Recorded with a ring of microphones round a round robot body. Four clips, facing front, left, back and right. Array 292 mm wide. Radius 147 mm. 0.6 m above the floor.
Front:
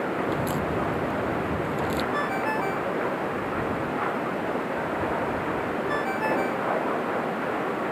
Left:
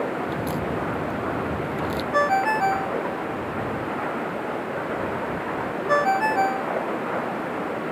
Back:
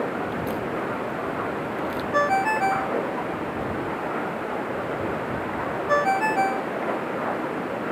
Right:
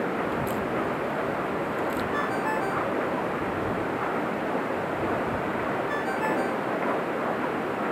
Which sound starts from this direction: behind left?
A ringtone, at 2.1 s.